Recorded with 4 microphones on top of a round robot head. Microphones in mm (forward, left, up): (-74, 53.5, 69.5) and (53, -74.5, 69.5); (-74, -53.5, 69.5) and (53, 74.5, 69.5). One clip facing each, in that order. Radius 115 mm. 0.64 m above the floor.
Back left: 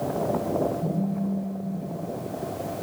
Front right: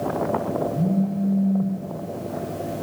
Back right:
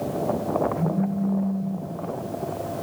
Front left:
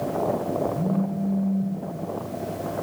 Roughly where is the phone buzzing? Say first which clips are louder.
Front right 5 dB, even; ahead right.